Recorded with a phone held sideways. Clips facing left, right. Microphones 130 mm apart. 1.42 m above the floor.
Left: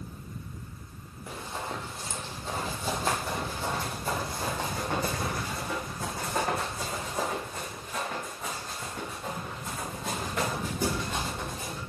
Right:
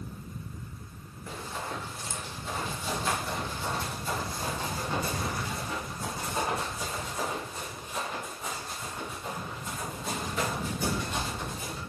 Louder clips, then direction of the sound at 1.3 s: Left 1 dB; 15° left (ahead or behind).